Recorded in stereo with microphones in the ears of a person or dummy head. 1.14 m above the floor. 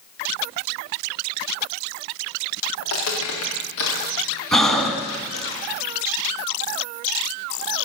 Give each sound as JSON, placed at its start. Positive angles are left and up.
{"t": 2.8, "sound": "footsteps", "side_deg": 75, "distance_m": 5.0}
{"t": 4.5, "sound": "breathing", "side_deg": 0, "distance_m": 1.8}